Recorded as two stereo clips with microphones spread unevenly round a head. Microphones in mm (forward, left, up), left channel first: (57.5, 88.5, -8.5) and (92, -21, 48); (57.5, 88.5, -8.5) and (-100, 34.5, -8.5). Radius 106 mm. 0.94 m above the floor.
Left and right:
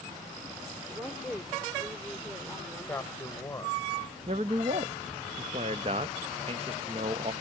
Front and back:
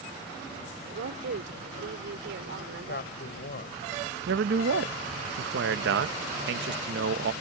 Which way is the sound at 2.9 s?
40° left.